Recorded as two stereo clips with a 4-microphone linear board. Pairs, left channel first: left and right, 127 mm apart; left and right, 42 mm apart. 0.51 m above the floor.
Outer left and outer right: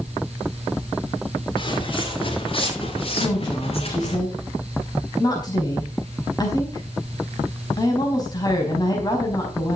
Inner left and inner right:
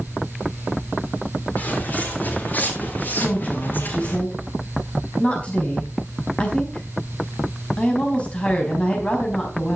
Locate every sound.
1.6 s footsteps: 40° left (ahead or behind), 6.5 m; by 4.2 s 55° left (ahead or behind), 7 m
3.2 s a woman speaking: 30° left (ahead or behind), 4.5 m